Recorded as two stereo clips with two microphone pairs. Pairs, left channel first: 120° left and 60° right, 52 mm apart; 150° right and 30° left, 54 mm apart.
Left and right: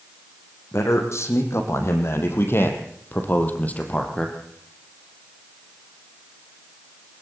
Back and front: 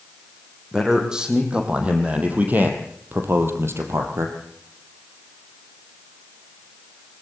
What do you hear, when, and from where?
0.7 s a man speaking: 110° left, 5 m; by 4.4 s 50° left, 3.5 m